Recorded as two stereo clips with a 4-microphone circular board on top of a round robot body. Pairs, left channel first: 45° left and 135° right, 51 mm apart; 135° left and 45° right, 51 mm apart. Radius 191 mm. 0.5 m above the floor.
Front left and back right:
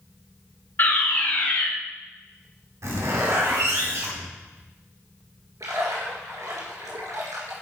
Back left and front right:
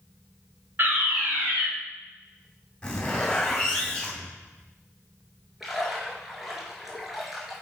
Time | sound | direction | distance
0.8 | a fire alarm | straight ahead | 4 m
2.8 | a zipper | 150° right | 2.5 m
5.6 | a splash | 130° right | 1.8 m